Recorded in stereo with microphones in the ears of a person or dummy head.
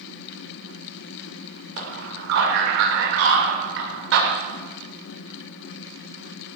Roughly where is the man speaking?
Right.